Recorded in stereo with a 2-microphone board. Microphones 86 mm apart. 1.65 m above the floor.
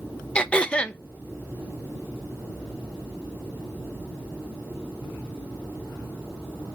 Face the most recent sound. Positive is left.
turn(degrees=15)  # may be behind; listen again after turning